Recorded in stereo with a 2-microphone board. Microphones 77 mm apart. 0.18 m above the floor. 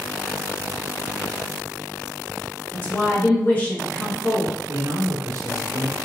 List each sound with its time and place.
2.7 s a woman speaking: 25° left (ahead or behind), 2.5 m
4.7 s a man speaking: 45° right (ahead or behind), 1.7 m